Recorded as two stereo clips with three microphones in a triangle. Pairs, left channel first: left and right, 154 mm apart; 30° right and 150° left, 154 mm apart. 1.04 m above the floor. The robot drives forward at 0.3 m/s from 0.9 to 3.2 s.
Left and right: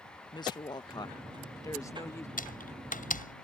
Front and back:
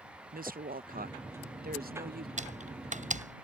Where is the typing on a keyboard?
115° left.